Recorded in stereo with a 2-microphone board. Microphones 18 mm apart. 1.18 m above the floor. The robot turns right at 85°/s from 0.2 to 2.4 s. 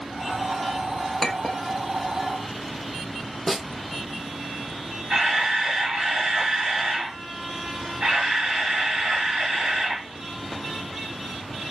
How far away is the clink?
About 0.7 m.